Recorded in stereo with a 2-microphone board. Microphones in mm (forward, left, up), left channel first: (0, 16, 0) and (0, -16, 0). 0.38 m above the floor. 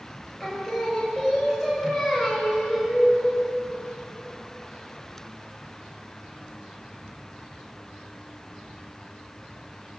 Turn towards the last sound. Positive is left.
turn(degrees=-5)  # may be behind; listen again after turning